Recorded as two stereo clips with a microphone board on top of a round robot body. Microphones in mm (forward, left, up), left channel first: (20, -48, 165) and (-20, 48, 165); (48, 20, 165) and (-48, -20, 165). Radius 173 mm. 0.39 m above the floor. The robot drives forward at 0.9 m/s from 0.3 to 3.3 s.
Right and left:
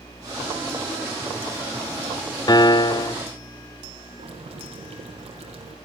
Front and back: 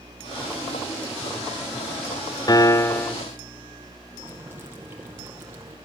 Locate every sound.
2.5 s a piano: 20° right, 1.0 m; by 3.1 s 65° right, 0.7 m
4.2 s boiling: 135° left, 5.5 m